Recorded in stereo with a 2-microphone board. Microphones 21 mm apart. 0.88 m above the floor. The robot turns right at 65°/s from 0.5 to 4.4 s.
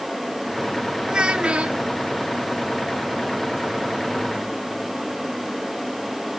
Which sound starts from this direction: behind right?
A child speaking, at 1.1 s.